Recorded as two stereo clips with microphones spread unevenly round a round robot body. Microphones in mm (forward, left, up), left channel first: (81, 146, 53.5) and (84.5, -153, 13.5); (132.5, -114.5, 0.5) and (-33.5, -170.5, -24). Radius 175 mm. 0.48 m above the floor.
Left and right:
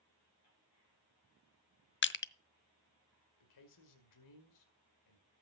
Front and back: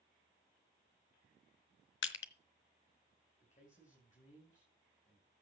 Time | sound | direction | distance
2.0 | crushing | 35° left | 0.7 m
3.4 | a man speaking | 85° left | 2 m